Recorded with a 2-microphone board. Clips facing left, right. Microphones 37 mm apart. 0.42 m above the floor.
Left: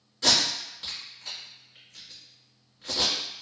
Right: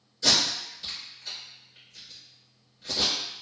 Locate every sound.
0.2 s tape being pulled: 65° left (ahead or behind), 1.9 m